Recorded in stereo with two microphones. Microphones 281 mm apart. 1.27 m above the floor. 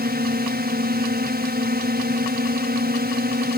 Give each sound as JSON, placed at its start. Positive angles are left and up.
{"t": 0.0, "sound": "a drone", "side_deg": -35}